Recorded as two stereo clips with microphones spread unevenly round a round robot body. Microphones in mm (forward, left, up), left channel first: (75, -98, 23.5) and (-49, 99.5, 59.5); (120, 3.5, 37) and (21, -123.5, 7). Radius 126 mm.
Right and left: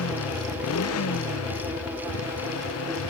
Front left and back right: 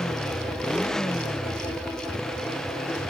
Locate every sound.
0.0 s a motorcycle: 35° right